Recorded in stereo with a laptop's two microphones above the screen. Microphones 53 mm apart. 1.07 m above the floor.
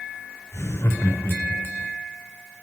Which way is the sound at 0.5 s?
60° left (ahead or behind).